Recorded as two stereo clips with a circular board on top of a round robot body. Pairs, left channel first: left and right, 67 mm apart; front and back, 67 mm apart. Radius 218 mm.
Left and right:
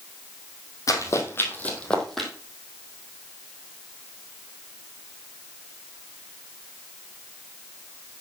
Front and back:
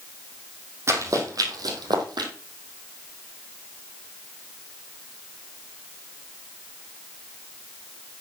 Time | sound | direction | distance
0.9 | running footsteps | 130° left | 2.5 m